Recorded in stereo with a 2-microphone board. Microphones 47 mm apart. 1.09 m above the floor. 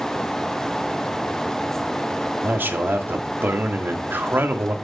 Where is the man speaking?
50° right (ahead or behind), 1.9 m.